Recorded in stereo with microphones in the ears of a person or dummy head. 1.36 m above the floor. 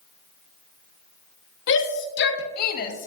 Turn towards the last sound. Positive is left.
turn(degrees=40)  # may be behind; listen again after turning